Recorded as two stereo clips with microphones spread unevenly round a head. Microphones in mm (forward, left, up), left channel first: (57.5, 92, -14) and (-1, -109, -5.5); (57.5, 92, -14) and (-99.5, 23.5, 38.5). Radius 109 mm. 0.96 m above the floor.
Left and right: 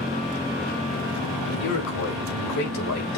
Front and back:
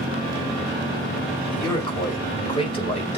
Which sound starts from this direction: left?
A man speaking, at 1.5 s.